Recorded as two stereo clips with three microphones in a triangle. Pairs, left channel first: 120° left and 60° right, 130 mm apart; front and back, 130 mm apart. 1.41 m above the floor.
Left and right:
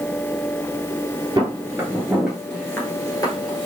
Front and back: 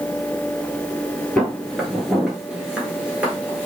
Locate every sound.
1.4 s footsteps: 80° right, 1.6 m; by 3.7 s 110° left, 1.7 m